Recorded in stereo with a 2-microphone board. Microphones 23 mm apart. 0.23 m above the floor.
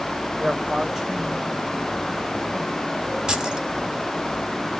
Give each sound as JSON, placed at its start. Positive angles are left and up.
{"t": 0.4, "sound": "a man speaking", "side_deg": -15, "distance_m": 1.3}
{"t": 3.3, "sound": "keys jangling", "side_deg": -35, "distance_m": 1.1}